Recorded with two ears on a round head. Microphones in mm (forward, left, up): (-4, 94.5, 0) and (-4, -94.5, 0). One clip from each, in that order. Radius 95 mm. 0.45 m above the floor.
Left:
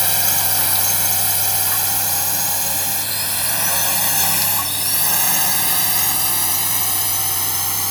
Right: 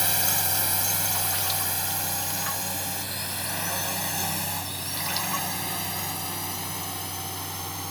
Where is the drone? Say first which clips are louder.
Left 5 dB; 15° left (ahead or behind); by 7.9 s 50° left (ahead or behind).